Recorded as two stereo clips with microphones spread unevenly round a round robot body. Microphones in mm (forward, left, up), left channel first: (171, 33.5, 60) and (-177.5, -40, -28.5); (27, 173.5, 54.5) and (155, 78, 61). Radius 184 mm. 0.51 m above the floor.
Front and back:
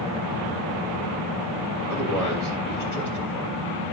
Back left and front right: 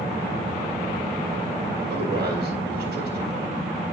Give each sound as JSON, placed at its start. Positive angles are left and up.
{"t": 1.9, "sound": "a man speaking", "azimuth_deg": -55, "distance_m": 2.5}